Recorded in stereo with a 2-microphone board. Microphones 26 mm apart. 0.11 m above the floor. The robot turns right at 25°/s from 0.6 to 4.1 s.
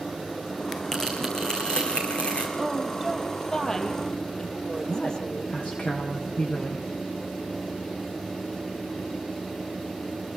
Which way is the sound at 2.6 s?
5° right.